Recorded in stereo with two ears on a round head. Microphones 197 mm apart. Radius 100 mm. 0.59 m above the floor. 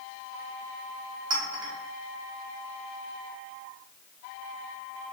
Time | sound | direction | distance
1.3 | a clink | 20° right (ahead or behind) | 0.7 m